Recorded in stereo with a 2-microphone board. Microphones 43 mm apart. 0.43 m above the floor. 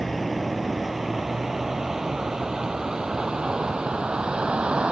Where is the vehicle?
Centre (ahead or behind); by 4.9 s 25° right (ahead or behind).